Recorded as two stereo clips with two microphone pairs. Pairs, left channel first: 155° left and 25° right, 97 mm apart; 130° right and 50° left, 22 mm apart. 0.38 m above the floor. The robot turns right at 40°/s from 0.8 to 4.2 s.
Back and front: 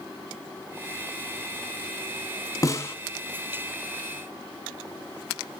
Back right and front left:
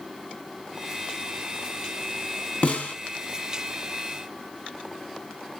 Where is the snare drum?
150° right, 1.9 m; by 3.0 s 140° right, 1.9 m.